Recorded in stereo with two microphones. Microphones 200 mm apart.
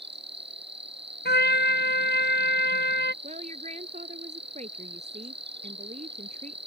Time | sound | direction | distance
0.0 | an insect | 60° right (ahead or behind) | ?
1.2 | a trumpet | 55° left (ahead or behind) | ?
3.2 | a woman speaking | 35° right (ahead or behind) | ?